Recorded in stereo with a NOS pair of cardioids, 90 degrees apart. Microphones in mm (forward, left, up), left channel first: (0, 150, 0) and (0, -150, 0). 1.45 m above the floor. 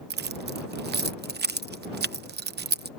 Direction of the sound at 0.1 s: 35° right.